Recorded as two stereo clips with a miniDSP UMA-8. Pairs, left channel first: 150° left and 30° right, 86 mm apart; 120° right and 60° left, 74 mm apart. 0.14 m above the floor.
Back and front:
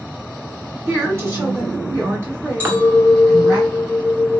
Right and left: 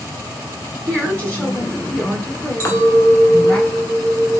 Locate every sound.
0.9 s a woman speaking: 60° right, 2.0 m
2.6 s a clink: 85° right, 0.9 m